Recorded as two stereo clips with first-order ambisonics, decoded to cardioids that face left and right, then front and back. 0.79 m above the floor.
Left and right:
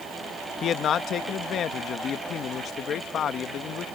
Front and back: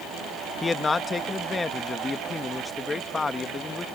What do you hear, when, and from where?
0.6 s a man speaking: 65° left